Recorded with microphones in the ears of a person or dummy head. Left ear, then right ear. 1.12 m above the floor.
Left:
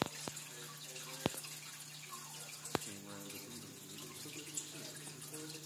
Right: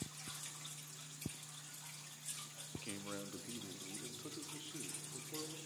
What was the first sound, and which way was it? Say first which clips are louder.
A man speaking: right 3 dB; 80° right.